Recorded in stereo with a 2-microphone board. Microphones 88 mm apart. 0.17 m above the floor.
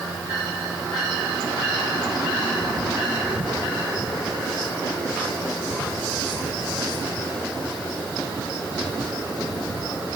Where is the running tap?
I don't hear a running tap.